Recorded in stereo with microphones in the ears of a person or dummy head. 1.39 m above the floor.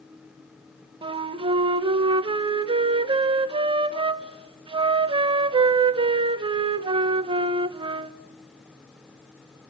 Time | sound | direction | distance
1.0 | a flute | 30° right (ahead or behind) | 0.7 m